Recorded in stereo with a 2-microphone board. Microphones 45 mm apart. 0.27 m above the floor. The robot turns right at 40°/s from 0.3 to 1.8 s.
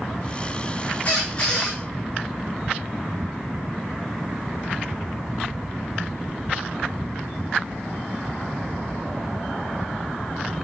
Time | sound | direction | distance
1.1 | a squeak | 35° left (ahead or behind) | 4 m